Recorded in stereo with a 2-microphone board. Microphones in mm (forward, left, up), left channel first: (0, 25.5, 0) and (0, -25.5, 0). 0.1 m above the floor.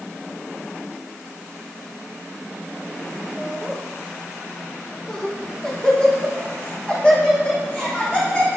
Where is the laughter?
5° left (ahead or behind), 5.5 m; by 8.5 s 25° left (ahead or behind), 7 m.